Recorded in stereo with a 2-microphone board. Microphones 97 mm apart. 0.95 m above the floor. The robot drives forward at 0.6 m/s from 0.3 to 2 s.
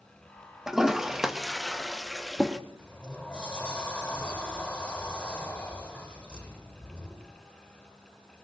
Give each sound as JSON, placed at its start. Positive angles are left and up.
{"t": 0.7, "sound": "a toilet flushing", "side_deg": -5, "distance_m": 1.2}
{"t": 2.8, "sound": "a sliding door", "side_deg": 10, "distance_m": 7.5}